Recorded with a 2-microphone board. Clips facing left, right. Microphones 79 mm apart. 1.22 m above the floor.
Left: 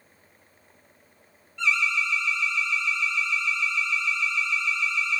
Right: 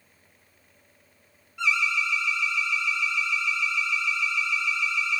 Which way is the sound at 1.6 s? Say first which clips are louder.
Even; 15° right (ahead or behind).